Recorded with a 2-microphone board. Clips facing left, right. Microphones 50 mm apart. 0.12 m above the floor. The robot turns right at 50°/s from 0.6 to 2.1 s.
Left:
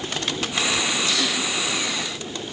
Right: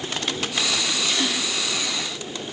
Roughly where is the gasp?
Right.